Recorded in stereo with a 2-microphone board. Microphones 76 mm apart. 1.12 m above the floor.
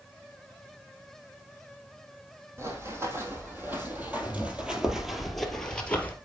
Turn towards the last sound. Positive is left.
turn(degrees=20)  # may be behind; listen again after turning